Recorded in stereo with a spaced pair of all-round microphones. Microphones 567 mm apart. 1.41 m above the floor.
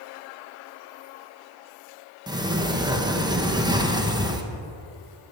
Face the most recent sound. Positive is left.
turn(degrees=-10)  # may be behind; listen again after turning